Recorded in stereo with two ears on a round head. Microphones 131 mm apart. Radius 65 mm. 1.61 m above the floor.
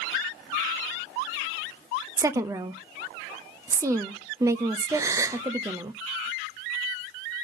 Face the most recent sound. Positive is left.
turn(degrees=-20)  # may be behind; listen again after turning